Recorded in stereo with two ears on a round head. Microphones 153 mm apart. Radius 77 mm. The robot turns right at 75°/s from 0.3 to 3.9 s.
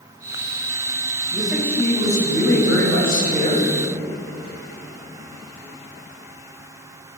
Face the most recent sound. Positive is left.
turn(degrees=180)